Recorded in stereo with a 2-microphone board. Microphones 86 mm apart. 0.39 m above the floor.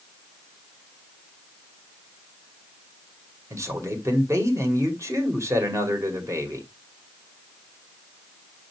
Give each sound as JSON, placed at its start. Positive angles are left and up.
{"t": 3.5, "sound": "a man speaking", "side_deg": -35, "distance_m": 1.9}